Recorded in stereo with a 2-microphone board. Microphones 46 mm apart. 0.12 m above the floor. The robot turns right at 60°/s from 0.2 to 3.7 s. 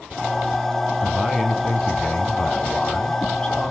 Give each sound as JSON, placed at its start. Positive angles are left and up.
{"t": 1.0, "sound": "a man speaking", "side_deg": -5, "distance_m": 1.5}